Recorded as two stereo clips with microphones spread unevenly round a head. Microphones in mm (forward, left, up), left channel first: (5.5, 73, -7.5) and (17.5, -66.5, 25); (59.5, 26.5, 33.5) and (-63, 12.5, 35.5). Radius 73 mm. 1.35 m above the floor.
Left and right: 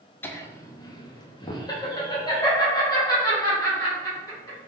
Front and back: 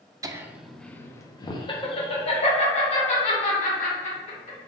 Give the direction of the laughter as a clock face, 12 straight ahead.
7 o'clock.